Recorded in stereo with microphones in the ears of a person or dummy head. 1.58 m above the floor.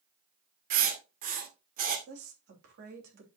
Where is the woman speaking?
50° right (ahead or behind), 3 m.